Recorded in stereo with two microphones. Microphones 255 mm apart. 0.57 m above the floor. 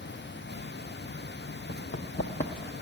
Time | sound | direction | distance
1.7 | running footsteps | 65° left (ahead or behind) | 1.2 m